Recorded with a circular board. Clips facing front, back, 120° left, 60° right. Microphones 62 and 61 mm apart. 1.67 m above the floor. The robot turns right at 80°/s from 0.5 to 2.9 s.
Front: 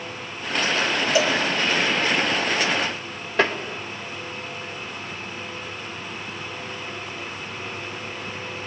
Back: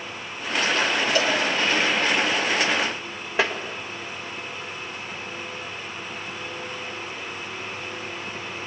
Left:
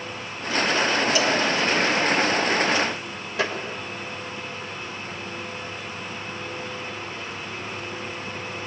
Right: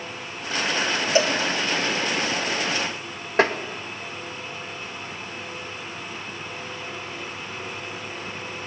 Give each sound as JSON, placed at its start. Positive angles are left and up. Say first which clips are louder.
{"t": 1.1, "sound": "a cowbell", "louder": "front 3 dB, right 5 dB", "azimuth_deg": -60, "distance_m": 1.8}
{"t": 3.4, "sound": "tapping", "louder": "front 3 dB, right 6 dB", "azimuth_deg": -95, "distance_m": 2.0}